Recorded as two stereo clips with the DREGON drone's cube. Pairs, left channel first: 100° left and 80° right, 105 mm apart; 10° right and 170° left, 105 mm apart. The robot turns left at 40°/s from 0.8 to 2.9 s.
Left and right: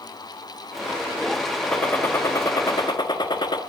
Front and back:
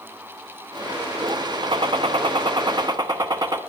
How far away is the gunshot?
About 0.8 m.